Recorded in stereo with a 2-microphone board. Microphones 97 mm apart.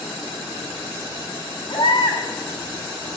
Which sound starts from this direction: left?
A baby crying, at 1.7 s.